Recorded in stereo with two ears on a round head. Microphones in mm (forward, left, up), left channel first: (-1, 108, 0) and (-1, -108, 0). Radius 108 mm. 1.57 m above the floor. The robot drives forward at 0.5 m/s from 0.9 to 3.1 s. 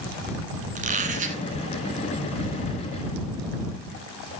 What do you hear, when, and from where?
0.8 s a squeak: 35° right (ahead or behind), 1.7 m